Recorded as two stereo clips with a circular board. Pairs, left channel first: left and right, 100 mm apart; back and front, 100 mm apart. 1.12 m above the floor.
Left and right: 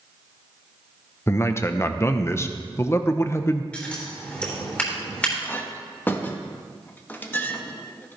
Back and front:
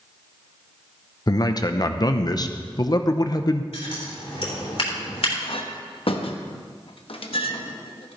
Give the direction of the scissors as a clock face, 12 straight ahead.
6 o'clock.